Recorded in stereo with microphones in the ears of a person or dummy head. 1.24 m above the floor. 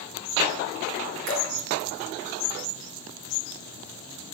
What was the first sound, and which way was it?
Dripping, 65° right (ahead or behind).